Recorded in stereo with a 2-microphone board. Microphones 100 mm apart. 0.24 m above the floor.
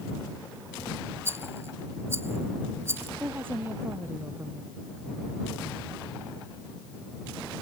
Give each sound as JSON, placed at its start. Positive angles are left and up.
{"t": 1.2, "sound": "a rattle", "side_deg": -25}
{"t": 3.2, "sound": "a woman speaking", "side_deg": -20}